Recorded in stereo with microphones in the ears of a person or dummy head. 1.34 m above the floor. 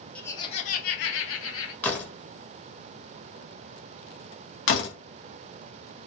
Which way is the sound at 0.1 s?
5° left (ahead or behind).